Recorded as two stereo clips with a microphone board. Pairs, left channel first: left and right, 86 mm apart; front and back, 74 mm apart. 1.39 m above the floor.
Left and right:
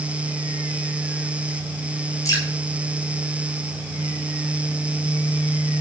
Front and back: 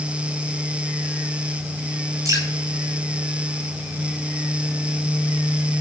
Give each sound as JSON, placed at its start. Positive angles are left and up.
{"t": 2.2, "sound": "dripping", "azimuth_deg": 145, "distance_m": 10.0}